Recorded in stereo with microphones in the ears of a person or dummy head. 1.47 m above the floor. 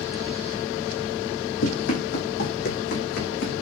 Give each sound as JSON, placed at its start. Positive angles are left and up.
{"t": 1.6, "sound": "running footsteps", "side_deg": 60, "distance_m": 4.0}